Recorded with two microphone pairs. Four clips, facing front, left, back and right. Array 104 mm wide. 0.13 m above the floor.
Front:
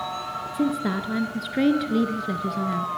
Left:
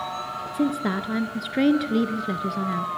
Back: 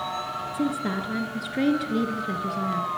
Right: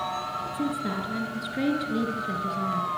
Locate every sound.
0.5 s a woman speaking: 80° left, 1.9 m